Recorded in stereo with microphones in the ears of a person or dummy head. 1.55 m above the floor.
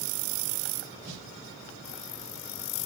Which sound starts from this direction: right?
A snare drum, at 1.1 s.